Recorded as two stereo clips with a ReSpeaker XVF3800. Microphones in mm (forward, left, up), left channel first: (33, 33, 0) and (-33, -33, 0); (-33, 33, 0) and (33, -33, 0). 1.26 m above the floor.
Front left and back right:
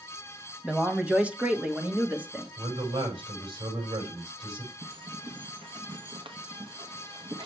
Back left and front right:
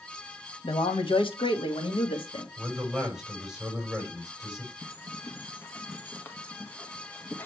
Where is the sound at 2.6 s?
130° right, 6 m.